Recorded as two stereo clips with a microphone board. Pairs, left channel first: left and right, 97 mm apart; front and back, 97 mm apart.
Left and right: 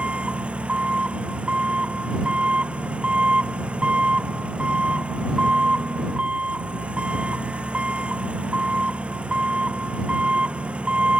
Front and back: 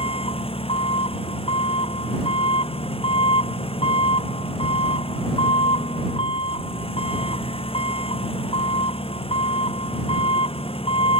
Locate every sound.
0.0 s an engine running: 10° right